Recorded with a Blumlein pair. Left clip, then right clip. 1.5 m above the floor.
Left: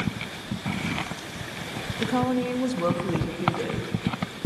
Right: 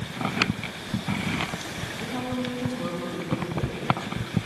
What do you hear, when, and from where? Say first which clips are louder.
2.0 s a woman speaking: left 7 dB; 65° left, 2.5 m